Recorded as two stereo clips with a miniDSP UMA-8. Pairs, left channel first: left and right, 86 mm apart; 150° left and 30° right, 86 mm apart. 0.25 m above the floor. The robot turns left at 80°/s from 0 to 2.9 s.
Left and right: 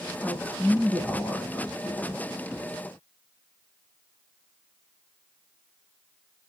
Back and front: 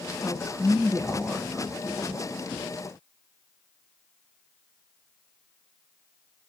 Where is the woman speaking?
170° left, 0.9 m; by 2.2 s 10° left, 0.9 m.